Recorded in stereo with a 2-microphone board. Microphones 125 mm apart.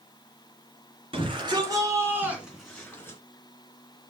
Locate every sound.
1.1 s a shout: 45° right (ahead or behind), 2.5 m; by 3.2 s 20° left (ahead or behind), 2.5 m